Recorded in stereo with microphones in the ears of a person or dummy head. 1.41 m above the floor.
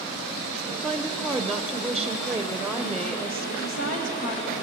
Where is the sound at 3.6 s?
45° left (ahead or behind), 1.6 m.